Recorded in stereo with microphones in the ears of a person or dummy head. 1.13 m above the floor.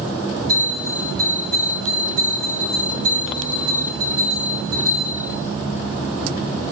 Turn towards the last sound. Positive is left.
turn(degrees=-65)  # may be behind; listen again after turning